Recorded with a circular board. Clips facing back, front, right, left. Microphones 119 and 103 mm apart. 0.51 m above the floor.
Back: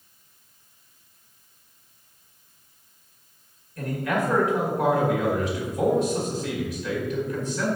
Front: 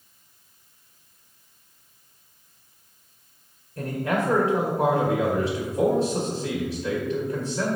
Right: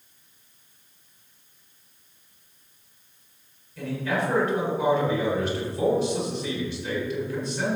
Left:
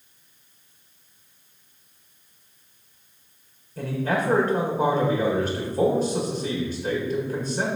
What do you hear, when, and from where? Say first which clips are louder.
3.8 s a man speaking: even, left 2 dB; 50° left, 1.8 m